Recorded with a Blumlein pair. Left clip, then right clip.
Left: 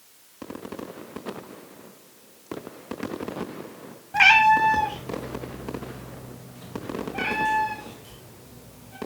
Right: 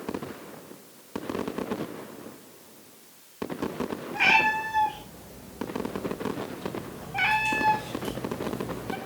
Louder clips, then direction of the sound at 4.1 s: Left 6 dB; 30° left.